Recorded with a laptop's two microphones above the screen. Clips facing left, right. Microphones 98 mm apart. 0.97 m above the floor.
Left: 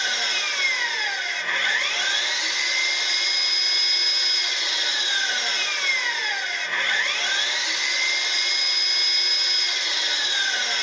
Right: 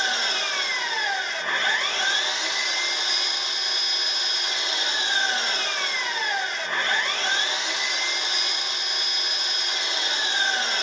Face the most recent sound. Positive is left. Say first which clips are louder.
# right 2 dB
turn(degrees=-40)  # may be behind; listen again after turning